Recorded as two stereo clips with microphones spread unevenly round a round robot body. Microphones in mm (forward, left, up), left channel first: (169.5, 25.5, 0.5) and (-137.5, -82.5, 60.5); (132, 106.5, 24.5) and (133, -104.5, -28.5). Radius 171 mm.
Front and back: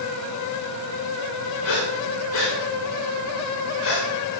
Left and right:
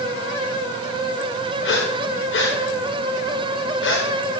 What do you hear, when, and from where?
1.6 s breathing: 70° left, 8 m